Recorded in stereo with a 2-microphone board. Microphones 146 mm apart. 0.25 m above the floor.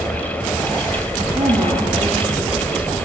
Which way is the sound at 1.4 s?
40° right (ahead or behind).